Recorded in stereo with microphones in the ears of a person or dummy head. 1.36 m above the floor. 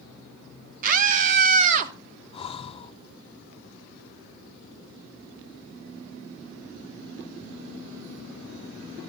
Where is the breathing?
30° left (ahead or behind), 0.7 m.